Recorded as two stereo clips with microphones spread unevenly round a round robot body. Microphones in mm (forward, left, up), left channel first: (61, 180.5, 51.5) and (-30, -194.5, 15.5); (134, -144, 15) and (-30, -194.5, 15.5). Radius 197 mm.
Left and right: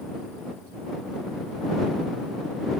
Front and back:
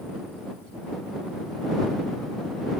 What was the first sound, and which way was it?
Only background noise.